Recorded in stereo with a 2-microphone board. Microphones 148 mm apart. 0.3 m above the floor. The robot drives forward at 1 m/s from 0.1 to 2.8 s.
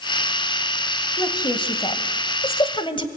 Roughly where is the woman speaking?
Left.